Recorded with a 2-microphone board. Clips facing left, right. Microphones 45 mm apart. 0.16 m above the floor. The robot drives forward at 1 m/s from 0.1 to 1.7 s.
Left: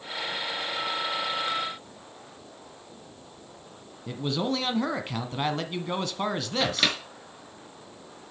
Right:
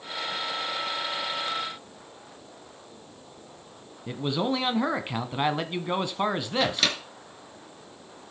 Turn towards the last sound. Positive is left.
turn(degrees=10)  # may be behind; listen again after turning